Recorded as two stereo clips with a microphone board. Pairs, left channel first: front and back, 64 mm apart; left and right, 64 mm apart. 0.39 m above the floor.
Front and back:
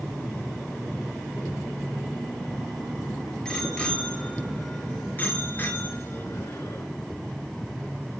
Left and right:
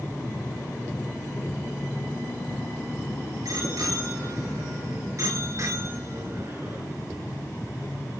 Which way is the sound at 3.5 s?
75° right.